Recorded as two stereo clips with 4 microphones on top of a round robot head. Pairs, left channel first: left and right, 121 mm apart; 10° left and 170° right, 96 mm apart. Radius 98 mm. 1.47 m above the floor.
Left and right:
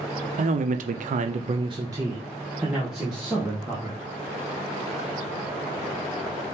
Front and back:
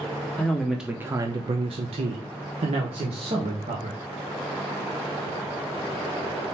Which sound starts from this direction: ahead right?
A man speaking, at 0.4 s.